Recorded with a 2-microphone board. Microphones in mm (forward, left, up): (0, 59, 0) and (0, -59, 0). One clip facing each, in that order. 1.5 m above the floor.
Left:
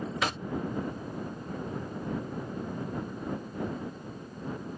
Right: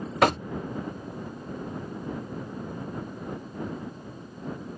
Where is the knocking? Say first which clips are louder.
Right 13 dB; 60° right (ahead or behind).